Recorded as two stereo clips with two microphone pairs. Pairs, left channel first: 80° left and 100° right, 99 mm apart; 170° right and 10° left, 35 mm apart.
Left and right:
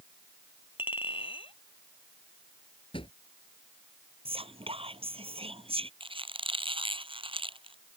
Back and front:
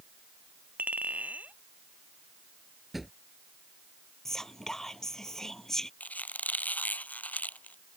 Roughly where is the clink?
Ahead left.